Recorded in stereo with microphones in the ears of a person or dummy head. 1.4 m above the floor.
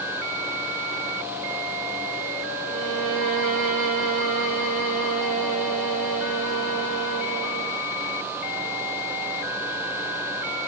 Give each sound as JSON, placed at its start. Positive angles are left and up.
{"t": 2.6, "sound": "a violin", "side_deg": -75, "distance_m": 7.0}